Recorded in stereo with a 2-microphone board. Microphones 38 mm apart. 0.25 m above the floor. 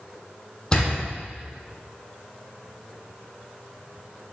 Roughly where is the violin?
I don't hear a violin.